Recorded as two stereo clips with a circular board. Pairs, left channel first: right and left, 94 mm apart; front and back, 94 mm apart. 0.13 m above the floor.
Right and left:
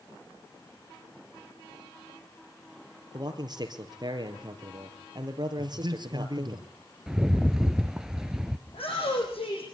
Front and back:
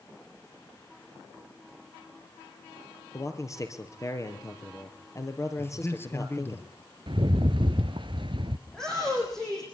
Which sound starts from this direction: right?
A shout, at 8.7 s.